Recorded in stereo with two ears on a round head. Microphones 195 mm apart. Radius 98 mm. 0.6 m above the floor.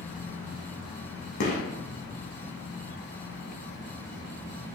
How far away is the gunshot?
About 0.6 m.